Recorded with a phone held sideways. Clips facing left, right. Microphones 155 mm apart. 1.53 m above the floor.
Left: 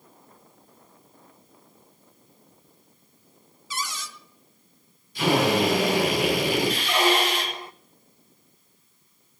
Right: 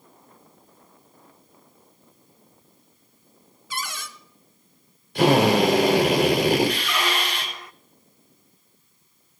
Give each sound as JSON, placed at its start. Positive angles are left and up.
{"t": 3.7, "sound": "a cupboard door", "side_deg": -60, "distance_m": 1.0}
{"t": 5.2, "sound": "a drill", "side_deg": -80, "distance_m": 6.0}
{"t": 6.8, "sound": "a squeak", "side_deg": 30, "distance_m": 0.5}